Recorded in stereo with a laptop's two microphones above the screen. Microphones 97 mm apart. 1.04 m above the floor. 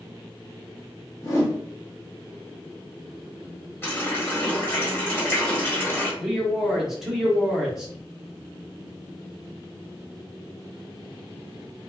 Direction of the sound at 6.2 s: 5° right (ahead or behind).